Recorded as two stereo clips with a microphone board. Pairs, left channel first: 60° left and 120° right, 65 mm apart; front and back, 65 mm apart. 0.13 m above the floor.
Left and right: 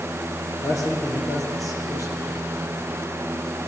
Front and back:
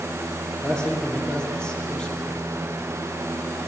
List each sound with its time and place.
0.6 s a man speaking: 75° left, 3.5 m